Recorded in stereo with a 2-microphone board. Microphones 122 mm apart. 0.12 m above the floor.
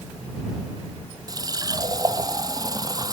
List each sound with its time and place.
1.3 s a running tap: 30° right (ahead or behind)